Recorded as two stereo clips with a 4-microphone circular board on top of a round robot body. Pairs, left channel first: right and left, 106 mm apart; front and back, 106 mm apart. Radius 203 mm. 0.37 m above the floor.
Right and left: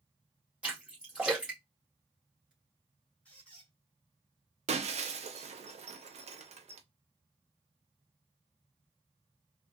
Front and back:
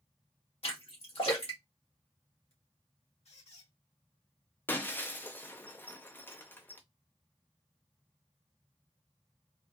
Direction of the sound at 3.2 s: 15° right.